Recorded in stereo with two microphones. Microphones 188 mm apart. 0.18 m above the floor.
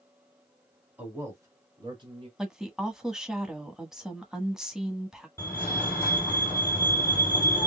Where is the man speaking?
10° right (ahead or behind), 1.8 m; by 2.3 s 30° right (ahead or behind), 1.9 m.